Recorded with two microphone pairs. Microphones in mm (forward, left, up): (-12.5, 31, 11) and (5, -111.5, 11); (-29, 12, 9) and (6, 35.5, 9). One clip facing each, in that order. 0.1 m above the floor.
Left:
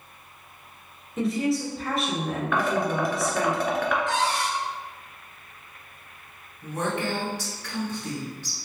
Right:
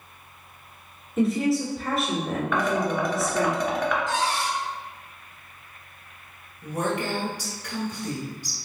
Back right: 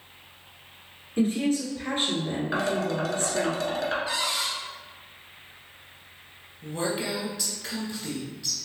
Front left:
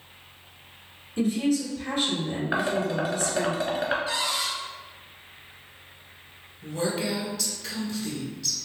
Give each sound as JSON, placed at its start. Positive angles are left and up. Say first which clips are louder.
{"t": 1.2, "sound": "a woman speaking", "louder": "right 3 dB, even", "azimuth_deg": -170, "distance_m": 1.4}
{"t": 2.5, "sound": "dishes clattering", "louder": "even, front left 1 dB", "azimuth_deg": 10, "distance_m": 1.1}
{"t": 4.1, "sound": "a cupboard door", "louder": "even, even", "azimuth_deg": 120, "distance_m": 1.7}
{"t": 6.6, "sound": "a woman speaking", "louder": "right 1 dB, front left 1 dB", "azimuth_deg": -130, "distance_m": 1.2}